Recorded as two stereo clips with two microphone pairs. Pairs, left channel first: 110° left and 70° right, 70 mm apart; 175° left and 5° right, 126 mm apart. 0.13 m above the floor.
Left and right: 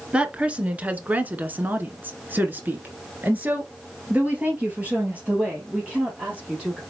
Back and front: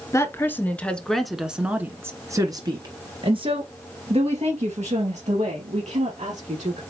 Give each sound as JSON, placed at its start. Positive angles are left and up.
{"t": 0.1, "sound": "a woman speaking", "azimuth_deg": -130, "distance_m": 1.4}